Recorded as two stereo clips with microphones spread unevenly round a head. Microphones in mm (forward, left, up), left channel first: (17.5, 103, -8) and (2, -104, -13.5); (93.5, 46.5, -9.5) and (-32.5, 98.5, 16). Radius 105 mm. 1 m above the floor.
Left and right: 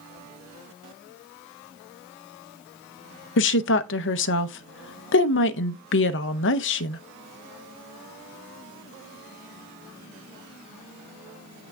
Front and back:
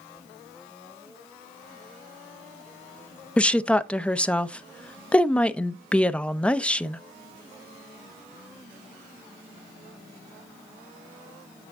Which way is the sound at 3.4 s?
55° left.